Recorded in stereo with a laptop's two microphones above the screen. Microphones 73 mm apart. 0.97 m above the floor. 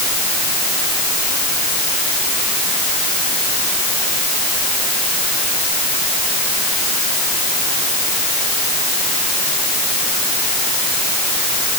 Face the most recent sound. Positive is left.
No sound to turn to.